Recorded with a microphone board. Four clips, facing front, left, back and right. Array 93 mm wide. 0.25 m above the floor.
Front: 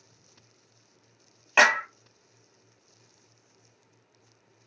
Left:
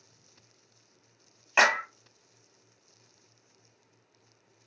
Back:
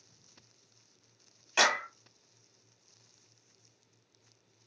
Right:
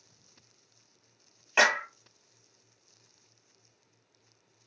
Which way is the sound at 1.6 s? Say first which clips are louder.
Left 1 dB, front 7 dB; 10° left.